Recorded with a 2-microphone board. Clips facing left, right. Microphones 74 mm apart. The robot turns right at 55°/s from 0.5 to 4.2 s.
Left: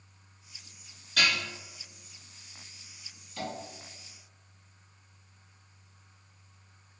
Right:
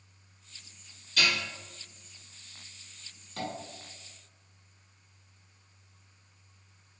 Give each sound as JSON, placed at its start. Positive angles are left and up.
{"t": 1.2, "sound": "dishes clattering", "side_deg": 60, "distance_m": 1.8}
{"t": 3.4, "sound": "tapping", "side_deg": -50, "distance_m": 1.2}